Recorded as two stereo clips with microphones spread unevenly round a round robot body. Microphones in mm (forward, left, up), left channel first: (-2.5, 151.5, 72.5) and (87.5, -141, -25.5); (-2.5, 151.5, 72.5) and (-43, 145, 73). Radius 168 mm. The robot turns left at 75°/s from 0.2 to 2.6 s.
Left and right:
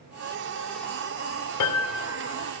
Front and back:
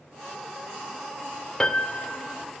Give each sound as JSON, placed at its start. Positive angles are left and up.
{"t": 1.6, "sound": "a piano", "azimuth_deg": 80, "distance_m": 0.7}